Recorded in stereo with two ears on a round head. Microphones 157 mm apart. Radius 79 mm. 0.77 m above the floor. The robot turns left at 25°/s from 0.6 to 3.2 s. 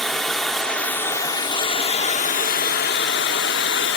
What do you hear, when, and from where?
0.0 s running water: straight behind, 1.0 m; by 4.0 s 115° left, 1.0 m